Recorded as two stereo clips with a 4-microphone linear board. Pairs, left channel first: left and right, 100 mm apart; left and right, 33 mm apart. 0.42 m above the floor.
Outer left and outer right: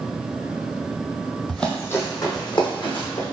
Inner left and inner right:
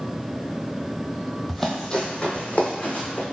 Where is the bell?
No bell in this recording.